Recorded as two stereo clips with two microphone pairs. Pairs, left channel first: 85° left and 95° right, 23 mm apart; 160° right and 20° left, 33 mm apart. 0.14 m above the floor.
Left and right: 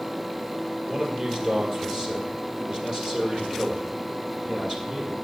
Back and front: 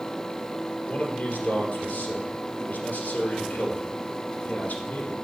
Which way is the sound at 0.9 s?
140° right.